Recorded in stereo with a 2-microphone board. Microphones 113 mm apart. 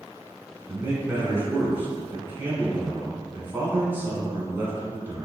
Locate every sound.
0.7 s a man speaking: 20° right (ahead or behind), 1.1 m